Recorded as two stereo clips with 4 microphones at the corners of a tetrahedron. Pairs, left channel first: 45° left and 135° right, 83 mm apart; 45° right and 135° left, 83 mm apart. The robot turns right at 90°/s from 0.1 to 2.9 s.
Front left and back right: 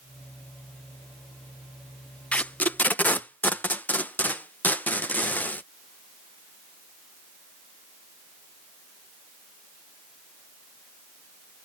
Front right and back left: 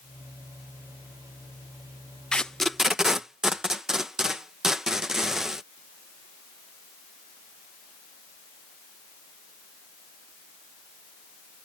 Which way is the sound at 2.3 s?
5° left.